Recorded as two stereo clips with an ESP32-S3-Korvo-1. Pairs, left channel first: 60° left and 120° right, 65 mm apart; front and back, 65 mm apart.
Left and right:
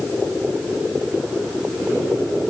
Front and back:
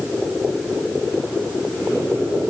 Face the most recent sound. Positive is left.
No sound to turn to.